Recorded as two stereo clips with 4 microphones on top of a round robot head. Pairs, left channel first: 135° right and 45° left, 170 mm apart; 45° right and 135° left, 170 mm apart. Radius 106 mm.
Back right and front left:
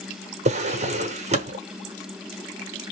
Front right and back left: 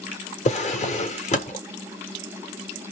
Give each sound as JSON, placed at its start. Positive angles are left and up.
{"t": 0.5, "sound": "a drawer", "azimuth_deg": 0, "distance_m": 1.0}